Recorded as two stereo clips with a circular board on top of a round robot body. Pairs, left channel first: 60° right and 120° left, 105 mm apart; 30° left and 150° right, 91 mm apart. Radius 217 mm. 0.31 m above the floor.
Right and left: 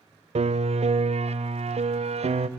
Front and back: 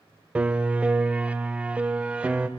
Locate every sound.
0.3 s a piano: 135° left, 0.7 m